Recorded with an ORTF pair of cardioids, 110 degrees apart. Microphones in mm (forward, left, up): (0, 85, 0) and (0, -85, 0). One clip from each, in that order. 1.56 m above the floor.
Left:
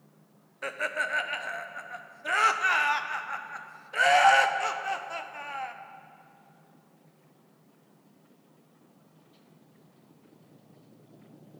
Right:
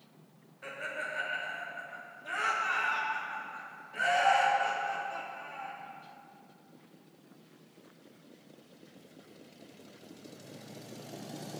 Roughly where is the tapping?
No tapping in this recording.